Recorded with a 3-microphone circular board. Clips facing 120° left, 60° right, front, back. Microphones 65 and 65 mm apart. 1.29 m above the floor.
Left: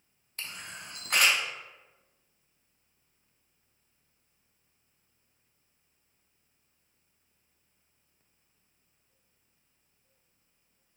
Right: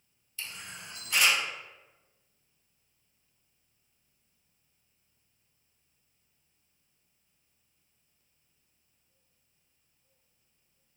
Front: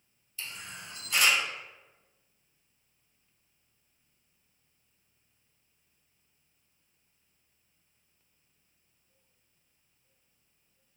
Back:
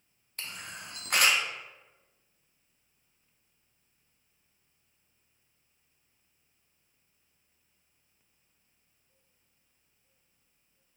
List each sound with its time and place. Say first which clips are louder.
0.4 s a camera shutter: left 1 dB, back 1 dB; 150° left, 0.6 m